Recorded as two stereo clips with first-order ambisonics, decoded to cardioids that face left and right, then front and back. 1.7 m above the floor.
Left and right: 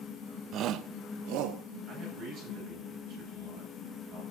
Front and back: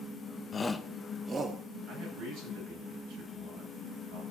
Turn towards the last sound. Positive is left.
turn(degrees=-140)